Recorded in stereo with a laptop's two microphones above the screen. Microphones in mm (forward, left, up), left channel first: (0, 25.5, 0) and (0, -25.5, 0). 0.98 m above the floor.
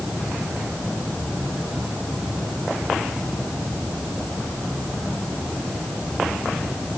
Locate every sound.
Only background noise.